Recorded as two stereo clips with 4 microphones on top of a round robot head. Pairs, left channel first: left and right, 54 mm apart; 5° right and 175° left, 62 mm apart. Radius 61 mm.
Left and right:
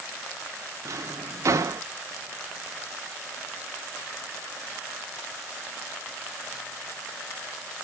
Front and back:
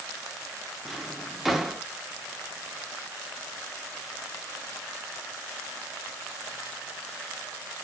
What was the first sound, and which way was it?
A drawer, 100° right.